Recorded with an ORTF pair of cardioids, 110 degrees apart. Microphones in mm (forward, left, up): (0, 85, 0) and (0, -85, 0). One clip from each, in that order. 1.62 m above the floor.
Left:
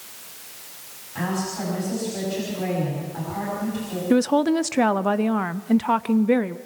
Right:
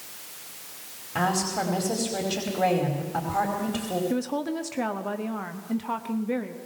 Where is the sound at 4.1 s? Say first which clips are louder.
Left 9 dB; 40° left, 0.7 m.